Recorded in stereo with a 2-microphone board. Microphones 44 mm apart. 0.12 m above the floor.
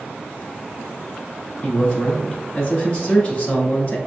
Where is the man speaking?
30° left (ahead or behind), 1.3 m.